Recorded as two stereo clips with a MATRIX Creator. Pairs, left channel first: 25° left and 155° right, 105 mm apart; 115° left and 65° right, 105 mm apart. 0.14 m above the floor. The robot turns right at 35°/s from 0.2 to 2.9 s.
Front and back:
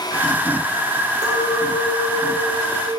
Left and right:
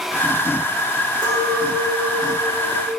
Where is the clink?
105° right, 5.5 m; by 2.9 s 50° right, 5.5 m.